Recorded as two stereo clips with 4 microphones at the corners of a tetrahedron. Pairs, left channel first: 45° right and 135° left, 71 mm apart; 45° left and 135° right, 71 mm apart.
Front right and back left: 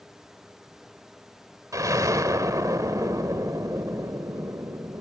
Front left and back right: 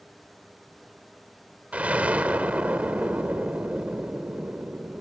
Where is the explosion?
155° left, 1.7 m.